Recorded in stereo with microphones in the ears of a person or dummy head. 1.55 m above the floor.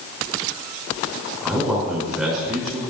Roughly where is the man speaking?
Centre.